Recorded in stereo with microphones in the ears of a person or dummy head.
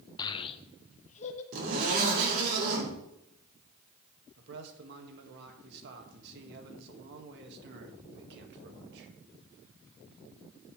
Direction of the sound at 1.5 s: 50° right (ahead or behind).